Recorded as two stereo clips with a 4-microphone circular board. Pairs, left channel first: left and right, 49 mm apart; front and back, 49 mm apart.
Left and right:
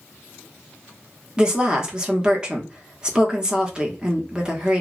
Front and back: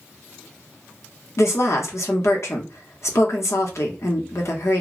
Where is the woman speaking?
20° right, 0.8 m.